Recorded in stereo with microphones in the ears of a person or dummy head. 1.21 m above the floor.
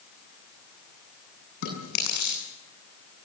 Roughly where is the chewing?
Left.